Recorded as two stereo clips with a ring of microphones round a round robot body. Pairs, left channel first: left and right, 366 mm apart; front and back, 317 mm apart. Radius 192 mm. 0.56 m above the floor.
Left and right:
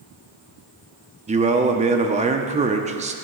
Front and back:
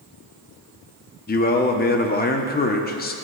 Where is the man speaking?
30° right, 0.7 m.